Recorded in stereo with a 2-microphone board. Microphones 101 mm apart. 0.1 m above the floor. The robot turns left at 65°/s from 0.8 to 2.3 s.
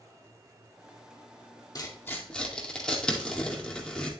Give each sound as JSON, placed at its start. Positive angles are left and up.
{"t": 1.8, "sound": "tearing paper", "side_deg": 40, "distance_m": 2.0}